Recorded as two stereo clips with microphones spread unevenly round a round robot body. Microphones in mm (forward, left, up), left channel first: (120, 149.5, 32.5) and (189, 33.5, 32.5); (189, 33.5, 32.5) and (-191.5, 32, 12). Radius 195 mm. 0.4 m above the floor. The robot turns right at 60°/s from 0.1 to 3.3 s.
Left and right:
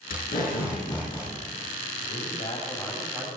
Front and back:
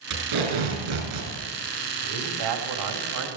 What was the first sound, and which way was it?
Tape being pulled, 135° left.